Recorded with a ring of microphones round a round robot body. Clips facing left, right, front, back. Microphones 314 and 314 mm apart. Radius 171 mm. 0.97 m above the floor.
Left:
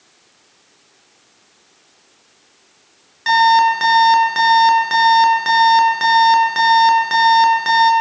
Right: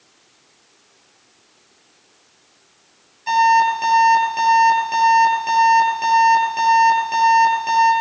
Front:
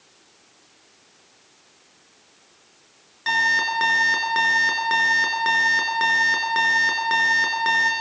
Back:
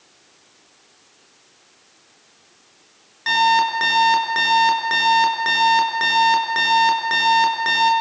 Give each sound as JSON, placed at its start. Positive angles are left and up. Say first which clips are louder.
{"t": 3.3, "sound": "an alarm clock", "louder": "left 2 dB, back 9 dB", "azimuth_deg": 90, "distance_m": 6.5}